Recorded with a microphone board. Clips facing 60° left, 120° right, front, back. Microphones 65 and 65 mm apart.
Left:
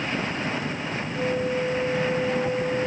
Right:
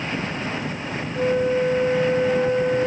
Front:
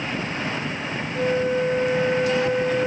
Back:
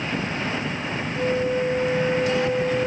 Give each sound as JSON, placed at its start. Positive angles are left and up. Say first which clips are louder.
{"t": 1.1, "sound": "a flute", "louder": "right 6 dB, front 1 dB", "azimuth_deg": -75, "distance_m": 2.0}